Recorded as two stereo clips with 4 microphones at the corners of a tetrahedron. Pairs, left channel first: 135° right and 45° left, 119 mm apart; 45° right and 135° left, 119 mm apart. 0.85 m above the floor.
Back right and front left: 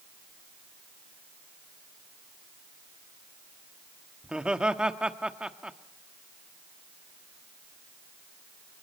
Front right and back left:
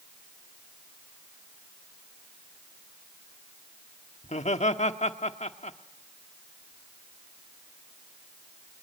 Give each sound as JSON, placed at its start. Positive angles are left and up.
{"t": 4.2, "sound": "laughter", "azimuth_deg": -35, "distance_m": 1.3}